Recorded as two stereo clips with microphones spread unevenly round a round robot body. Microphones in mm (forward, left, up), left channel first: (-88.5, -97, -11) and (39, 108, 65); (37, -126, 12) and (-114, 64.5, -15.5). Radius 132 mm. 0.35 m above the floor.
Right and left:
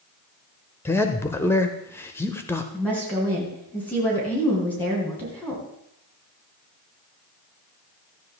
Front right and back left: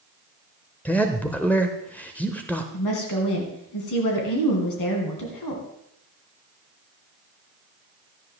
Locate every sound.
0.8 s a man speaking: 140° right, 0.9 m
2.7 s a woman speaking: 45° right, 3 m